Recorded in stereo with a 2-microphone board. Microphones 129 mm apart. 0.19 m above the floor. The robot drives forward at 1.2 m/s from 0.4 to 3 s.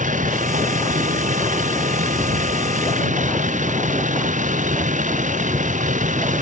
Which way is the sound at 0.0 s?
85° right.